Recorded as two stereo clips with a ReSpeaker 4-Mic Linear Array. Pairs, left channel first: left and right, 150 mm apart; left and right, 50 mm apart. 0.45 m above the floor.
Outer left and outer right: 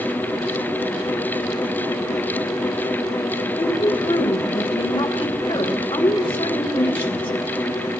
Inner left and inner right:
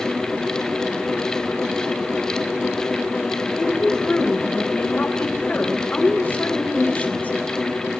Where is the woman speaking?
40° left (ahead or behind), 2.5 m.